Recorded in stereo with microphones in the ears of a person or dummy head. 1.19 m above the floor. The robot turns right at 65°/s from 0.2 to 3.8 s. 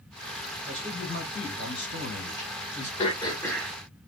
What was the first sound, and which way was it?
A man speaking, straight ahead.